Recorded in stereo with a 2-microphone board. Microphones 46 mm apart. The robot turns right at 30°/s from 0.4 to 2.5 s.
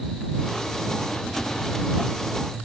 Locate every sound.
Only background noise.